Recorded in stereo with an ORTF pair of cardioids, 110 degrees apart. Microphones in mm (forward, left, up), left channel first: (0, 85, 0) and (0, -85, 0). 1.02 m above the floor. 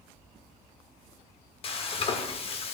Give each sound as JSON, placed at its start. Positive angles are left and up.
{"t": 1.6, "sound": "frying", "azimuth_deg": 35, "distance_m": 1.3}